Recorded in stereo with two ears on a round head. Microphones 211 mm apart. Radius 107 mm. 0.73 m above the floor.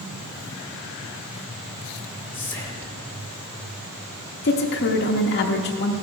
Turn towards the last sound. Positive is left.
turn(degrees=50)  # may be behind; listen again after turning